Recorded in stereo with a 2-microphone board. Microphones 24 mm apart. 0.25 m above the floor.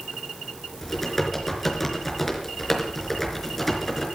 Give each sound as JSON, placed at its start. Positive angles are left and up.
{"t": 0.8, "sound": "typing on a keyboard", "side_deg": 10, "distance_m": 4.0}